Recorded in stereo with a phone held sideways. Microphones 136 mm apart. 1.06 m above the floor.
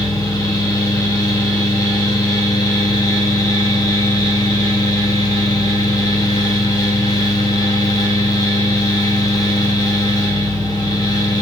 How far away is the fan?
About 1.0 m.